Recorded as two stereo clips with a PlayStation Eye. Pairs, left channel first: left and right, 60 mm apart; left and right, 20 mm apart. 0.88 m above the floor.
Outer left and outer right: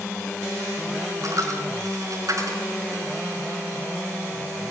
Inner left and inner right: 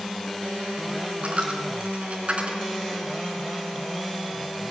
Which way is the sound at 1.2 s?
70° right (ahead or behind).